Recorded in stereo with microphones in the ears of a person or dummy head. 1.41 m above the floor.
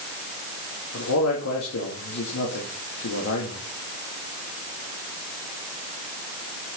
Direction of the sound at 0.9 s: 75° left (ahead or behind).